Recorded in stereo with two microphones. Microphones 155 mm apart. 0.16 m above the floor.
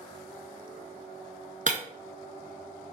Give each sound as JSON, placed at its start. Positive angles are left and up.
{"t": 1.7, "sound": "breaking glass", "side_deg": -55, "distance_m": 0.6}